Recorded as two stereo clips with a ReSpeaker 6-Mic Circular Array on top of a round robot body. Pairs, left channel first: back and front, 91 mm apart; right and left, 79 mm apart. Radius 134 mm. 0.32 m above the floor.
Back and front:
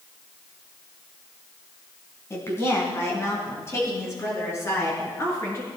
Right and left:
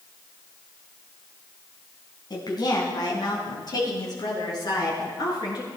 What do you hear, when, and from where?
2.3 s a woman speaking: 120° right, 3.5 m